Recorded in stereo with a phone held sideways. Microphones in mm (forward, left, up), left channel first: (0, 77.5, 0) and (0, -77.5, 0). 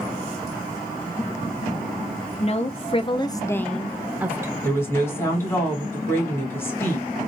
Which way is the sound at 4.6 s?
20° left (ahead or behind).